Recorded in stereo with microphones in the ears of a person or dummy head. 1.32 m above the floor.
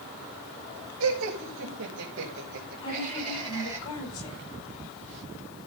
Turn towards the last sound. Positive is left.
turn(degrees=25)  # may be behind; listen again after turning